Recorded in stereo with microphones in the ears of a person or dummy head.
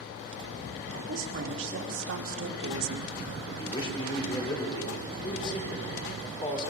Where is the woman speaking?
70° right (ahead or behind), 4 m; by 3.2 s 80° right, 1.2 m.